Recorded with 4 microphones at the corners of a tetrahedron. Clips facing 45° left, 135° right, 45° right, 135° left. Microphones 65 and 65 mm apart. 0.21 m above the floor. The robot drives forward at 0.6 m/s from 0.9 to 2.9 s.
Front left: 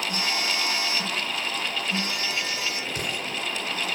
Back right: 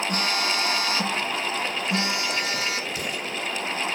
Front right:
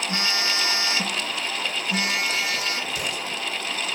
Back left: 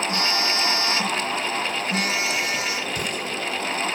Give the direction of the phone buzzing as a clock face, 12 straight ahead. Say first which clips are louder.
Back right 2 dB, back left 2 dB; 4 o'clock.